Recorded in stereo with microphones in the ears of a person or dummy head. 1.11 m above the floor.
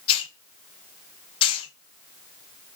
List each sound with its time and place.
0.1 s a hiss: 30° left (ahead or behind), 0.6 m